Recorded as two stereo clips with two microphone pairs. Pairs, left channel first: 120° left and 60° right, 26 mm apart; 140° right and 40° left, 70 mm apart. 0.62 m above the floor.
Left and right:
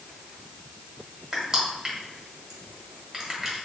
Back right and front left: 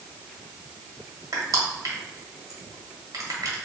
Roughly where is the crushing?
Ahead.